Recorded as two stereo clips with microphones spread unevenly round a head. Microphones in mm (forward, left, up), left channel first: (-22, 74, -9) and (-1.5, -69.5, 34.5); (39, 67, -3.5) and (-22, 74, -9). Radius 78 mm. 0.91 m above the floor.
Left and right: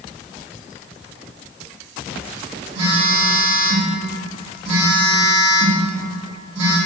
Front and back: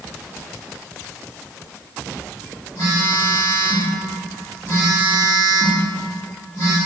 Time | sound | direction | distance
2.8 | a phone buzzing | 80° right | 1.1 m